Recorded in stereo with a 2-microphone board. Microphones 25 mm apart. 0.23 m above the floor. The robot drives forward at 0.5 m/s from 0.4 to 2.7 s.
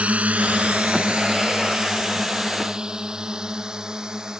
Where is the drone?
60° right (ahead or behind); by 4.4 s 30° right (ahead or behind).